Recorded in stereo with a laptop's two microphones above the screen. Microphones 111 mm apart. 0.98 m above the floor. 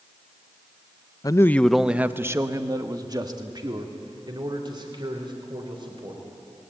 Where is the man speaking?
35° left (ahead or behind), 0.6 m; by 6.2 s 45° right (ahead or behind), 4.5 m.